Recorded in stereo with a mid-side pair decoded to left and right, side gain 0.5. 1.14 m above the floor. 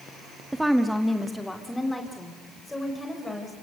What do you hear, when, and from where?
0.5 s a woman speaking: 10° right, 1.2 m; by 3.5 s 15° left, 5.5 m